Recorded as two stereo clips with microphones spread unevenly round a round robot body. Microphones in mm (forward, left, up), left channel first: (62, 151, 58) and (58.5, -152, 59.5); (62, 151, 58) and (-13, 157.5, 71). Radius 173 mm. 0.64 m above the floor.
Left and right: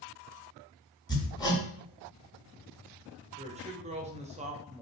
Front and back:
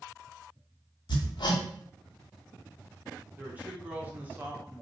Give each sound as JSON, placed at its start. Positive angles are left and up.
{"t": 1.1, "sound": "hammering", "azimuth_deg": 10, "distance_m": 1.1}
{"t": 3.4, "sound": "a woman speaking", "azimuth_deg": -120, "distance_m": 0.6}